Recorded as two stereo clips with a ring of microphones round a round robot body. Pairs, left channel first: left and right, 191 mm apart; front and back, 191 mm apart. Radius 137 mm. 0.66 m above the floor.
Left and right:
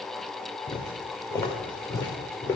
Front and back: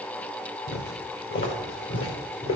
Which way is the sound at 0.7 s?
20° left.